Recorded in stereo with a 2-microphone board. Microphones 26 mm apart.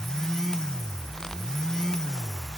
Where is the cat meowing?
I don't hear a cat meowing.